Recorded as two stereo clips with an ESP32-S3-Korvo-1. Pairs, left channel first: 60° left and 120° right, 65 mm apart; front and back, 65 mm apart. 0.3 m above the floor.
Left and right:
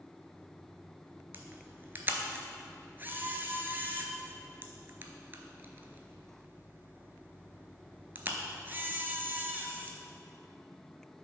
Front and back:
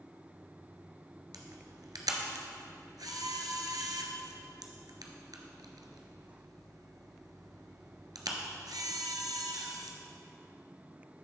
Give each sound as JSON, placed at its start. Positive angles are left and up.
{"t": 1.3, "sound": "a camera shutter", "azimuth_deg": 180, "distance_m": 0.8}